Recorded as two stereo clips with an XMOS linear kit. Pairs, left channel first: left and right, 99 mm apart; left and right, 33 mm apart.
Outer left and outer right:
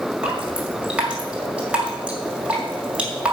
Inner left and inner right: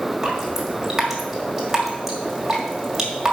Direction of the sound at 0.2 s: 10° right (ahead or behind).